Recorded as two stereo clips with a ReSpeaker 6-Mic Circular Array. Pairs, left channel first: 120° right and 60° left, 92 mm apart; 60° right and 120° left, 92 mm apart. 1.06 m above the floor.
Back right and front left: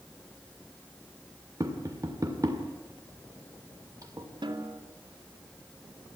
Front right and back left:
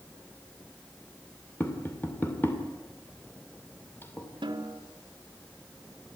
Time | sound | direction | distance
1.6 | tapping | 5° left | 2.5 m
4.4 | a snare drum | 90° left | 2.5 m